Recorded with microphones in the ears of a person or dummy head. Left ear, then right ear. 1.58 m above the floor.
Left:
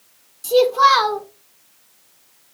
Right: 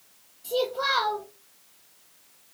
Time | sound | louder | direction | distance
0.4 | a child speaking | left 13 dB | 60° left (ahead or behind) | 1.1 m